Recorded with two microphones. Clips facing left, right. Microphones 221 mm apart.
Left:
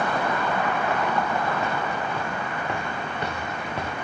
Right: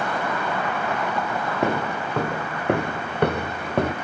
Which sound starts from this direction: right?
Footsteps, at 1.6 s.